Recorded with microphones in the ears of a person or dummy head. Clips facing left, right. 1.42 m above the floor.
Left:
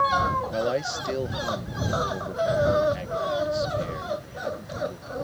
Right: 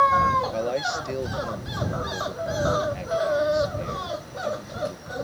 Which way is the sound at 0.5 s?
5° left (ahead or behind).